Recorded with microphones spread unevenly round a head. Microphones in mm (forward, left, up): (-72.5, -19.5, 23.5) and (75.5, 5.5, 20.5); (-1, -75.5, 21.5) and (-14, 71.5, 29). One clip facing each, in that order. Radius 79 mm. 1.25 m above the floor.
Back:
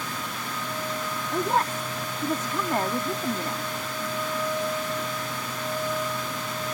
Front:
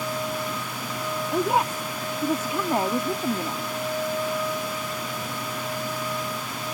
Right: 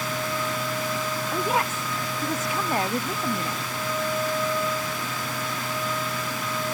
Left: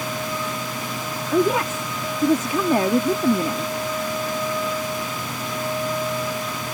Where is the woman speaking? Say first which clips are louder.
Front 2 dB, left 8 dB; 90° left.